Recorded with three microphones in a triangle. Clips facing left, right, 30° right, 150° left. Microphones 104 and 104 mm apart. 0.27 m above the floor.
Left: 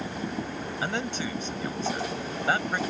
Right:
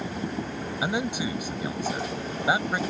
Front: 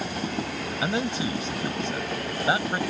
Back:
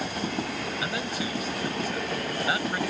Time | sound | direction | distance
0.8 | a man speaking | 25° right | ?